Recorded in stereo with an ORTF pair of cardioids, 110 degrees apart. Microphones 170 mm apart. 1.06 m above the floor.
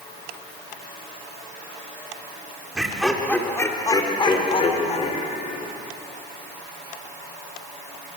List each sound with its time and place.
2.8 s laughter: 5° right, 3.5 m; by 5.7 s 50° left, 5 m